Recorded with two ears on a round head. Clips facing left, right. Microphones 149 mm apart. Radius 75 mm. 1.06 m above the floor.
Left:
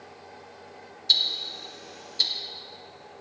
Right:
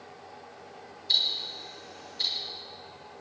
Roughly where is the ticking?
Left.